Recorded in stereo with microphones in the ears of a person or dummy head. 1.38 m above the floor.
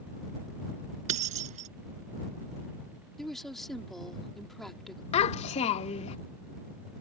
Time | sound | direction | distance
1.1 | keys jangling | 45° right (ahead or behind) | ?
3.2 | a woman speaking | 5° left (ahead or behind) | ?
5.1 | a child speaking | 30° left (ahead or behind) | ?